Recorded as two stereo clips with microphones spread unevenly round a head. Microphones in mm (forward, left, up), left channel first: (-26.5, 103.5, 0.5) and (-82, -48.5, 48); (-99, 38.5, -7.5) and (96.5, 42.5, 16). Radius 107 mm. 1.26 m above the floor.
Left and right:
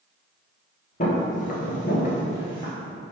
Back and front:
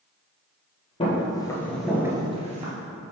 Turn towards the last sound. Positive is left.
turn(degrees=-15)